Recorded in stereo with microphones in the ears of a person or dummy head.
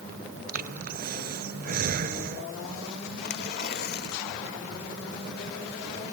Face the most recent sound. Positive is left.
turn(degrees=55)  # may be behind; listen again after turning